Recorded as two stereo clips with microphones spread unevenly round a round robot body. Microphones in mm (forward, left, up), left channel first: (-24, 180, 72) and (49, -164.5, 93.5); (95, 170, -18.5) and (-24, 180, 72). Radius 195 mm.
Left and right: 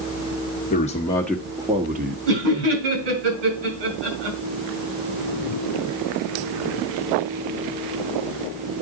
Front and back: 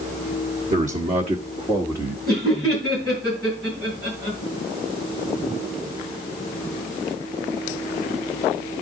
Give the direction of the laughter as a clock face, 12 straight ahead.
3 o'clock.